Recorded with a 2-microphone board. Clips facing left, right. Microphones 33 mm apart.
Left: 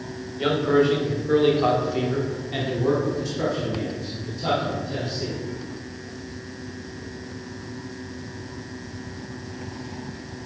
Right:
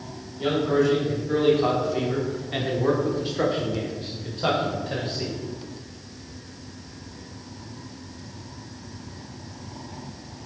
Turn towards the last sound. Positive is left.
turn(degrees=-60)  # may be behind; listen again after turning